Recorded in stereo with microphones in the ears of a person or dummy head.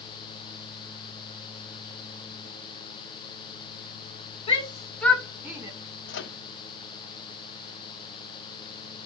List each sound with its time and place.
4.5 s a shout: 35° left (ahead or behind), 2.0 m; by 5.7 s 15° right (ahead or behind), 2.5 m
6.1 s a microwave: 65° left (ahead or behind), 1.2 m